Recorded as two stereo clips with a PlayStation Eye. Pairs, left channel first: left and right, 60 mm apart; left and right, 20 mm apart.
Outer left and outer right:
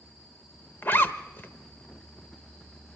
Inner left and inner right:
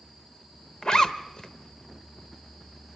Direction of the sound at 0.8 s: 35° left (ahead or behind).